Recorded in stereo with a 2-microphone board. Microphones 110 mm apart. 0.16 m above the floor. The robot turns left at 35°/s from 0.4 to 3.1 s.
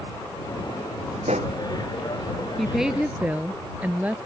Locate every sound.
1.2 s a pop: 80° right
2.6 s a woman speaking: centre (ahead or behind); by 4.2 s 15° right (ahead or behind)